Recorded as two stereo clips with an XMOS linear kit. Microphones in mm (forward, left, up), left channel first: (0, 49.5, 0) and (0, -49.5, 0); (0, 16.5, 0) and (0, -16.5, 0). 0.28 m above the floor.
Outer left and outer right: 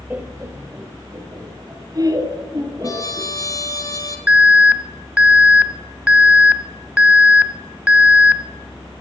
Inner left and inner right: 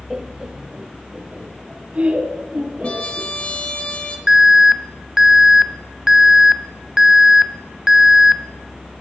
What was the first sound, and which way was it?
Laughter, 15° right (ahead or behind).